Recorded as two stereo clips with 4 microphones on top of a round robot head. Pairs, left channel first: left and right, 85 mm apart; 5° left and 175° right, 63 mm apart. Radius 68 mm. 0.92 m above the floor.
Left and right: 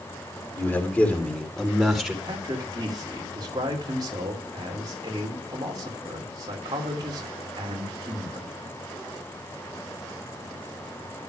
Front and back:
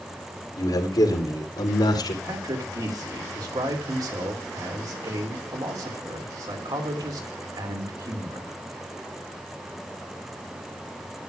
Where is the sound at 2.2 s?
140° right, 2.5 m.